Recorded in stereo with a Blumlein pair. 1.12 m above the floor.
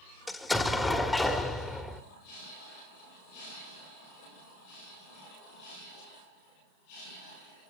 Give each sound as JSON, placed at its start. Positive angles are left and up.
{"t": 0.3, "sound": "an explosion", "azimuth_deg": 5, "distance_m": 1.4}